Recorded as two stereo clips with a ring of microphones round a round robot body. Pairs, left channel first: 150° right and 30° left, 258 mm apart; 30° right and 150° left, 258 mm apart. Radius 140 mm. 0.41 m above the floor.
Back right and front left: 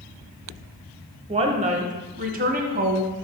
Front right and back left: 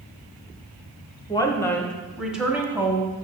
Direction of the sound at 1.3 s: 15° left.